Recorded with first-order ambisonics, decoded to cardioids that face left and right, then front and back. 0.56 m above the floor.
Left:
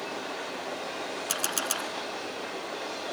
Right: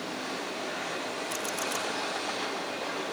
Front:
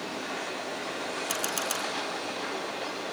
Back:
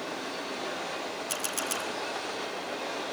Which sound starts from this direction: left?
A camera shutter, at 1.3 s.